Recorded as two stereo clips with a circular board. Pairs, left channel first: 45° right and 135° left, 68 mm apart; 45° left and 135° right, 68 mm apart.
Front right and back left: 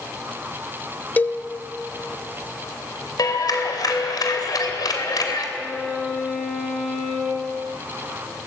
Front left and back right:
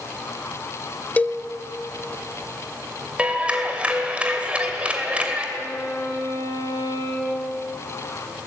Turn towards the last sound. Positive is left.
turn(degrees=40)